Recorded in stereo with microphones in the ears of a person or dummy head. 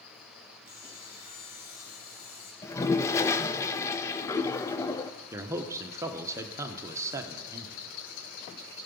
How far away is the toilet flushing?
About 0.6 m.